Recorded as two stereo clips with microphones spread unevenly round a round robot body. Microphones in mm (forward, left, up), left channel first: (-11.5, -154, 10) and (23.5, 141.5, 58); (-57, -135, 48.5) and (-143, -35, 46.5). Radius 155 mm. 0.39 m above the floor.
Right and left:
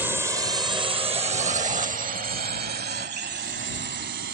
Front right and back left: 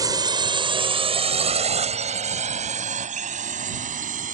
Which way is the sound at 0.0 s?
175° left.